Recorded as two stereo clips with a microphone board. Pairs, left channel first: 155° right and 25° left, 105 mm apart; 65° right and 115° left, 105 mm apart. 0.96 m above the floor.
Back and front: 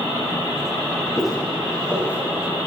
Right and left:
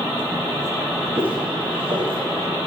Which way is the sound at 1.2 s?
110° left.